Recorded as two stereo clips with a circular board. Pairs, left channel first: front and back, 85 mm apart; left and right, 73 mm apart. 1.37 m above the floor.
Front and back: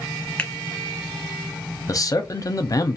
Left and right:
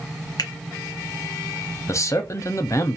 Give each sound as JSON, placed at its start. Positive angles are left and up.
{"t": 0.4, "sound": "a finger snap", "azimuth_deg": 75, "distance_m": 0.9}
{"t": 1.9, "sound": "a man speaking", "azimuth_deg": 45, "distance_m": 0.6}